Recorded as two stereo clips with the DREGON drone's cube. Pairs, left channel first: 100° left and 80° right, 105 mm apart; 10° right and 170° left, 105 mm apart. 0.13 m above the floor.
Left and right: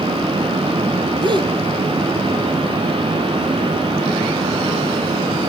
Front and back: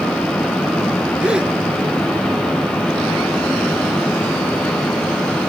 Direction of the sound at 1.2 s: 110° right.